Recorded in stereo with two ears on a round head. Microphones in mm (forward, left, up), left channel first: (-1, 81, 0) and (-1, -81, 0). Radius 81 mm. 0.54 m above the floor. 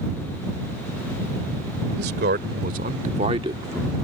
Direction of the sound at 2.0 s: 60° right (ahead or behind).